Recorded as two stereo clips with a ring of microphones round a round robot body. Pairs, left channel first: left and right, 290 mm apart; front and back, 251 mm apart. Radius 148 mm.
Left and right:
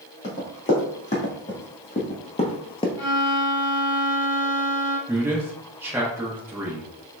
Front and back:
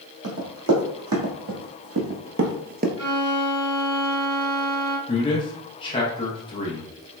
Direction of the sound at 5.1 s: 25° right.